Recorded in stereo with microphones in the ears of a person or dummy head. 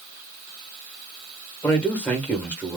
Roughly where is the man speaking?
Centre.